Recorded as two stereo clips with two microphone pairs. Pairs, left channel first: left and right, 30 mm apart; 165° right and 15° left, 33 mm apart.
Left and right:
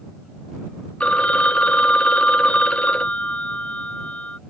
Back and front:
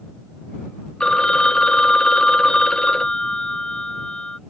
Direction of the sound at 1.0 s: 135° left.